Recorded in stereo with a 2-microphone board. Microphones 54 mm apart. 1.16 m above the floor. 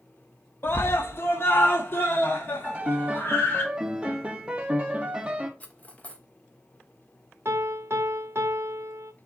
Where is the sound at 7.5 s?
55° right (ahead or behind), 0.6 m.